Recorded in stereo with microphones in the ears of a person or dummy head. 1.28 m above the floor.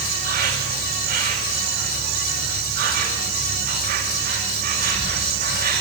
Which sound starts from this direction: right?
An insect, at 0.0 s.